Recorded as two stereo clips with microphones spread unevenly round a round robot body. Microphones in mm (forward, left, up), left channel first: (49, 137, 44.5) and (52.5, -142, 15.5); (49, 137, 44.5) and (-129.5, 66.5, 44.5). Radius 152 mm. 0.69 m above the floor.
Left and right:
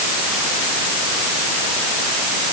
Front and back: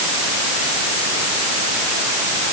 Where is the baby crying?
No baby crying in this recording.